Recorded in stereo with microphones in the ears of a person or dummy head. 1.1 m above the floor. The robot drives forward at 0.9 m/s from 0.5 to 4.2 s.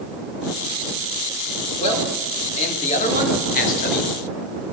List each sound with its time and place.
1.8 s a man speaking: 30° left (ahead or behind), 4 m; by 4.1 s 55° left (ahead or behind), 2.5 m